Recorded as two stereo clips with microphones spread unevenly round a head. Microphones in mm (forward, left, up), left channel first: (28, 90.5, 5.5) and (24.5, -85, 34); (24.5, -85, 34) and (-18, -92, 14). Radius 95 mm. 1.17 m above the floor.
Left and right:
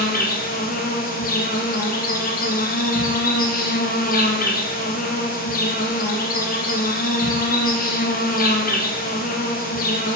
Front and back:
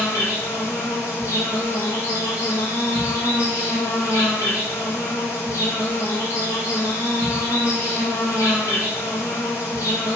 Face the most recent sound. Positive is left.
turn(degrees=65)